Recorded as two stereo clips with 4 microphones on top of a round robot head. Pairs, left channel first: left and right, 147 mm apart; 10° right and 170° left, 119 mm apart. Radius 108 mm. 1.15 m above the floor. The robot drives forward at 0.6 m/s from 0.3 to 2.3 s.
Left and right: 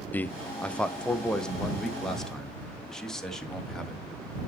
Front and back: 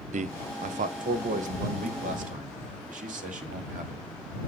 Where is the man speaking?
170° left, 0.5 m; by 4.0 s 175° left, 1.7 m.